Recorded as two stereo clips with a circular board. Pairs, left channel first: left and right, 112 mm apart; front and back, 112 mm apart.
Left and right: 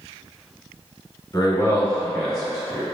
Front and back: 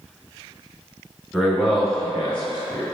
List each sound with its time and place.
1.3 s a man speaking: 105° left, 1.5 m; by 2.9 s 45° right, 1.4 m